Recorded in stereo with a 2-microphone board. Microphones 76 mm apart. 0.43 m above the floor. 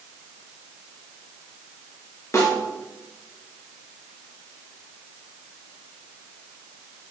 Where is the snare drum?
40° left (ahead or behind), 3 m.